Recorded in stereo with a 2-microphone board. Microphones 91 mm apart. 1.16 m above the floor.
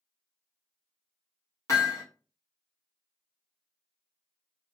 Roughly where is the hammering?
Left.